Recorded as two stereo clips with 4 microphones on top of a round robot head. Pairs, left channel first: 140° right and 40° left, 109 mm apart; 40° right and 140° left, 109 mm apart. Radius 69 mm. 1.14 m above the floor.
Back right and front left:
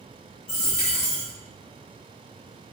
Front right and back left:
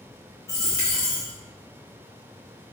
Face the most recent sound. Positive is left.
turn(degrees=-100)